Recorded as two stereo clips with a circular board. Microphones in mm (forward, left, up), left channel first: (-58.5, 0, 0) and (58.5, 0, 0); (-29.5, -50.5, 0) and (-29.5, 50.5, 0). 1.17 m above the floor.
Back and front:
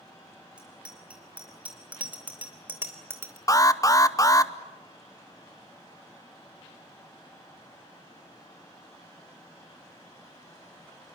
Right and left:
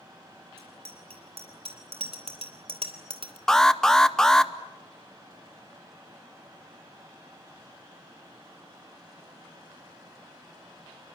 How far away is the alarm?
About 0.9 m.